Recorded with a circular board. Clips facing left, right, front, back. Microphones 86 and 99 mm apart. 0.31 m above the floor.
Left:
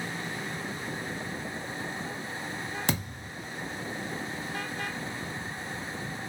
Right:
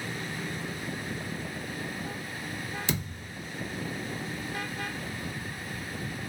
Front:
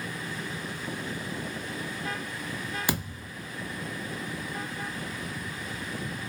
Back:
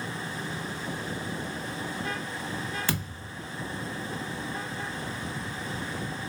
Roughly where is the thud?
Left.